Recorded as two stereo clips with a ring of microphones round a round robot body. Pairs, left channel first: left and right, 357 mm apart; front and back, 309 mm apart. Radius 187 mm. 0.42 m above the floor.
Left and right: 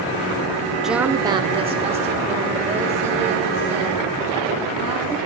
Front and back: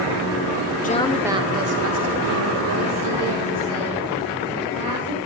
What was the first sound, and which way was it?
A woman speaking, 5° right.